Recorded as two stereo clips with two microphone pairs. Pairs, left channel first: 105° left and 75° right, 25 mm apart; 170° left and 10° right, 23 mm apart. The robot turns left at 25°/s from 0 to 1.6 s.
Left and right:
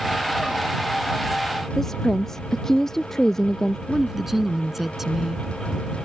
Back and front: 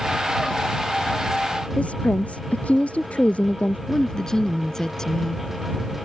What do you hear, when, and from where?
1.8 s a woman speaking: straight behind
3.9 s a woman speaking: 150° right